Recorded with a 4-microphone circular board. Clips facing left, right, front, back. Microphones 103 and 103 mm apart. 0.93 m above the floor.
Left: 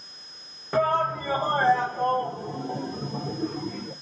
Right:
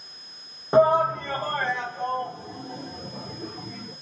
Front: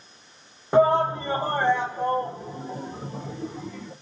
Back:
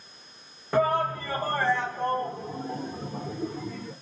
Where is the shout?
50° right, 0.6 m; by 3.9 s 85° left, 1.7 m.